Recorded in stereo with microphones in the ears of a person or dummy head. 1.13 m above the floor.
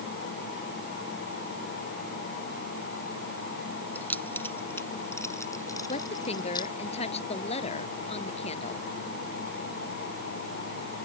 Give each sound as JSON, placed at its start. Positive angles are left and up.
{"t": 4.0, "sound": "keys jangling", "side_deg": 10}
{"t": 5.9, "sound": "a woman speaking", "side_deg": 40}